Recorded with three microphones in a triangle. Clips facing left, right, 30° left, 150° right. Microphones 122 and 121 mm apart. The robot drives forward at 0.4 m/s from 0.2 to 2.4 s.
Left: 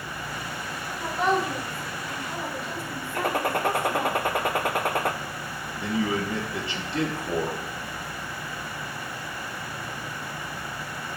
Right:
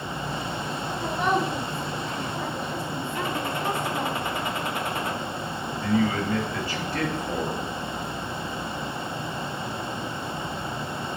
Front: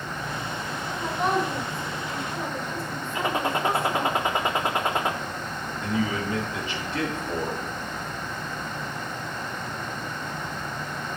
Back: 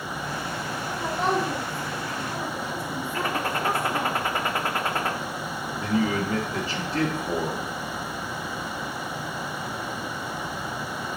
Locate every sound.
1.0 s a woman speaking: 170° left, 5.5 m
3.1 s a gunshot: 100° left, 0.6 m
5.8 s a man speaking: 155° left, 2 m